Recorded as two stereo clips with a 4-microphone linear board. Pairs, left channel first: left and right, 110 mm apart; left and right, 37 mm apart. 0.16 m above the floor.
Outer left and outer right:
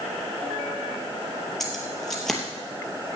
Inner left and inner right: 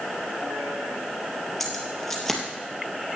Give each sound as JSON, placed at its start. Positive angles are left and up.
{"t": 1.6, "sound": "keys jangling", "side_deg": 5, "distance_m": 3.0}